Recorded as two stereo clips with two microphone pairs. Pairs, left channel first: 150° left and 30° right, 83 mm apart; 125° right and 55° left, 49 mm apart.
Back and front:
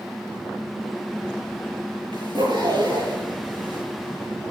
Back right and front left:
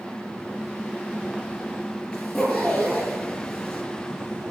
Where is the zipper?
45° right, 6 m.